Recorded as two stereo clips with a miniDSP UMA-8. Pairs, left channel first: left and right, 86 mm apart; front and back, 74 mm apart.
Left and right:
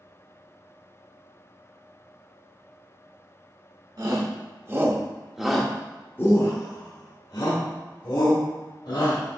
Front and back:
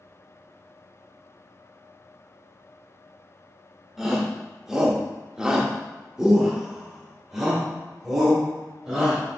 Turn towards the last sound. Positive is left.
turn(degrees=95)